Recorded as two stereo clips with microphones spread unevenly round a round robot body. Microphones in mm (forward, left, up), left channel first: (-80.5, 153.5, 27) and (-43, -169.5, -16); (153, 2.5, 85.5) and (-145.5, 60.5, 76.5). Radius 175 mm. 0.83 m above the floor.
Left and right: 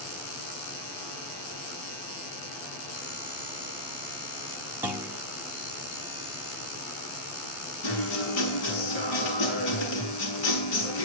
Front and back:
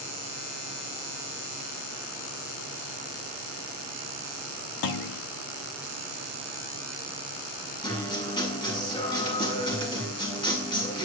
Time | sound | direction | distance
4.8 | a clunk | straight ahead | 1.4 m
7.8 | a guitar | 65° left | 7.5 m